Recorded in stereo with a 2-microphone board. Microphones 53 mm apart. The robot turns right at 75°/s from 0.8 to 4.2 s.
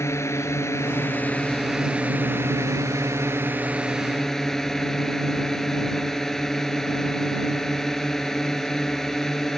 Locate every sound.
0.0 s a drone: 110° left; by 9.6 s 5° left